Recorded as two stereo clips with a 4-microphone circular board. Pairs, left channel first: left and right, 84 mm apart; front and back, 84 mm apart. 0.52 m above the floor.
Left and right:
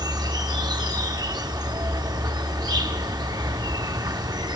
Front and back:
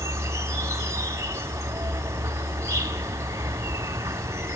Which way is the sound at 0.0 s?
125° right.